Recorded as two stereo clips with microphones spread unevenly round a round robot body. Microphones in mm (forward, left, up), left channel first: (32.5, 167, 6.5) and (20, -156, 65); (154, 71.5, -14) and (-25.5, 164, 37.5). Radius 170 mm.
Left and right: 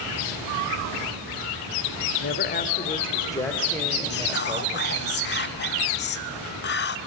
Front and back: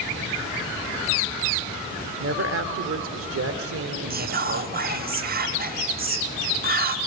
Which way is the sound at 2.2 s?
130° left.